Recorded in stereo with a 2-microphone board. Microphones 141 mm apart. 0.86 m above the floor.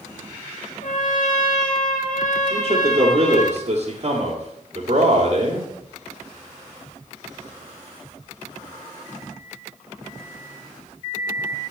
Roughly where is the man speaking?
Right.